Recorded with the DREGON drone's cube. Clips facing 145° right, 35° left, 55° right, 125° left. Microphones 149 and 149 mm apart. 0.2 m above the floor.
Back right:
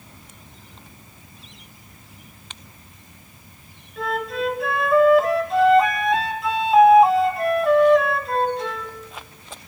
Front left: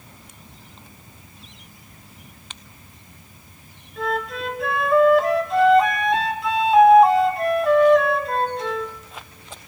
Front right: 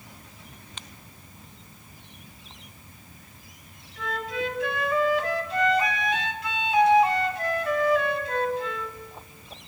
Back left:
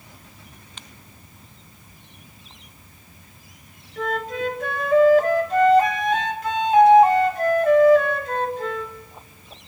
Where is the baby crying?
I don't hear a baby crying.